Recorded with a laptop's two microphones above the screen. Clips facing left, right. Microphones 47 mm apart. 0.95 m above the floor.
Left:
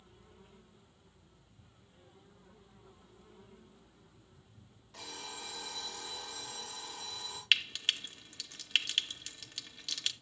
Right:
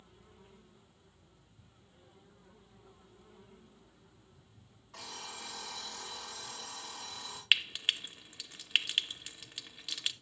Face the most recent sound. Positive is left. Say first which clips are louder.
# right 1 dB
turn(degrees=-15)  # may be behind; listen again after turning